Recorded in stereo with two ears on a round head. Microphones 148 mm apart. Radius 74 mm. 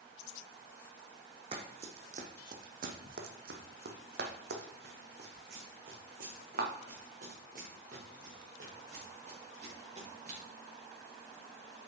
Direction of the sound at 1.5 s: 35° right (ahead or behind).